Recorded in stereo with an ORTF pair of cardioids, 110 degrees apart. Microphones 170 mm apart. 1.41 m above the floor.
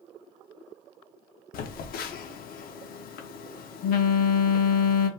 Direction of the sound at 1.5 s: 60° left.